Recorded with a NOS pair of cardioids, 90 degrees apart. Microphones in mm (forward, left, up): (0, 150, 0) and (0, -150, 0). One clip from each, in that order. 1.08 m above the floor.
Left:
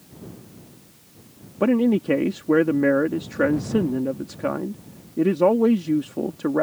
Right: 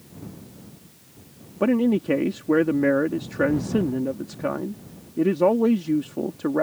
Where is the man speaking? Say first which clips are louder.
Left 1 dB; 10° left.